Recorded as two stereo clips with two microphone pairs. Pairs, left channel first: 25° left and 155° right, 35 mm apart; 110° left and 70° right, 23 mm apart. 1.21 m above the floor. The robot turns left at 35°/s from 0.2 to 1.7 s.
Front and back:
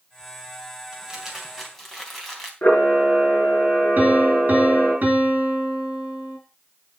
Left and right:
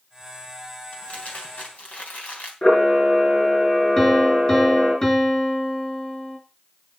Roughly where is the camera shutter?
Ahead left.